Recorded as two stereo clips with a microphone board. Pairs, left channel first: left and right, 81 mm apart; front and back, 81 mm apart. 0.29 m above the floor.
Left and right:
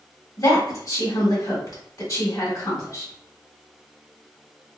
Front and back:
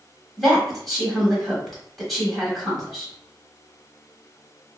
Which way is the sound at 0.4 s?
90° left.